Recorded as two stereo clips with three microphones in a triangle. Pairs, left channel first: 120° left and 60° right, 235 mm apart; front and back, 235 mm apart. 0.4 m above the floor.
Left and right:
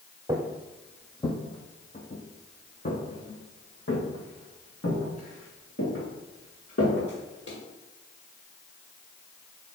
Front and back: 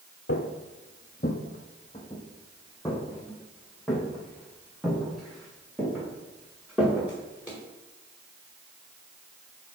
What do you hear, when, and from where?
0.3 s footsteps: 10° left, 0.8 m; by 7.6 s 95° left, 4.5 m